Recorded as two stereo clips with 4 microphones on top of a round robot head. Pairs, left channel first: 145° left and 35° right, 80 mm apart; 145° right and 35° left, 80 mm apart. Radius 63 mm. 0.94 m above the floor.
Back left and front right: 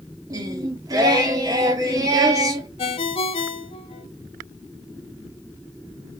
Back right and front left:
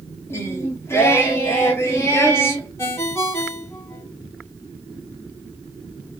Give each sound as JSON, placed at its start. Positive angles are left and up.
{"t": 0.3, "sound": "singing", "azimuth_deg": -85, "distance_m": 1.0}
{"t": 2.8, "sound": "a ringtone", "azimuth_deg": 150, "distance_m": 0.9}